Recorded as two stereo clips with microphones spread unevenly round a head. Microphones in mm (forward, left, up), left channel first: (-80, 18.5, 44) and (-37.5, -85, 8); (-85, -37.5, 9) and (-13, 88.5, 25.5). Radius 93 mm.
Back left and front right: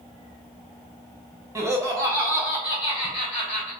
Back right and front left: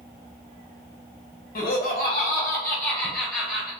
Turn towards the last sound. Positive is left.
turn(degrees=145)